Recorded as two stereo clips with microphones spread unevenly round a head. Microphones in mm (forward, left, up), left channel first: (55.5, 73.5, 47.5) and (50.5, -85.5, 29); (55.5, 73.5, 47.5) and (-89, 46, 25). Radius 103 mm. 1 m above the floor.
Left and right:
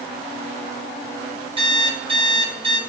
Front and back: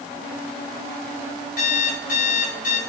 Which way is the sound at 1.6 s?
35° right.